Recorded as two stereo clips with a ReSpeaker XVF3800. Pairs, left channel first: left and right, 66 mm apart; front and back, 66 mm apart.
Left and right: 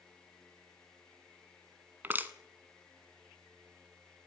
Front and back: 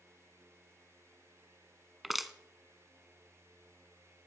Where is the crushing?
95° right, 1.1 m.